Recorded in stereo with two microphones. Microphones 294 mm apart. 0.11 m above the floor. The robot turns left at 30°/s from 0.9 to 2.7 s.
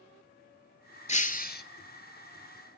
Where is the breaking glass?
25° left (ahead or behind), 0.6 m; by 1.6 s 35° left (ahead or behind), 0.6 m.